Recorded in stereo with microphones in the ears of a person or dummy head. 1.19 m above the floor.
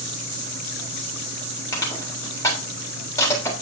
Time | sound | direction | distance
1.7 | crushing | 15° left (ahead or behind) | 4 m